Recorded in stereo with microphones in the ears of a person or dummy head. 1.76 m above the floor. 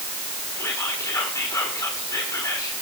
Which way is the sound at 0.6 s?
15° left (ahead or behind).